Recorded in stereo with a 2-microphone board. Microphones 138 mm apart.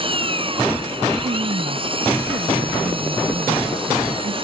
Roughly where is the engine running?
Right.